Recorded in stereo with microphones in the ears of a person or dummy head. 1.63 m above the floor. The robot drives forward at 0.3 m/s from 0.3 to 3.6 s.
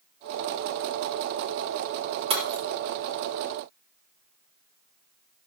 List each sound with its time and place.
2.3 s breaking glass: 35° right (ahead or behind), 4.5 m